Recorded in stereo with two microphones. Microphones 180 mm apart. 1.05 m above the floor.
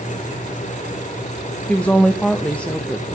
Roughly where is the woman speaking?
Centre.